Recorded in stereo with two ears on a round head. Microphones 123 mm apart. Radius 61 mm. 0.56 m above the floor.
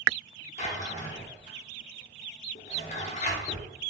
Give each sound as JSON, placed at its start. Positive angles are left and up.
{"t": 0.6, "sound": "a drawer", "side_deg": 55, "distance_m": 0.8}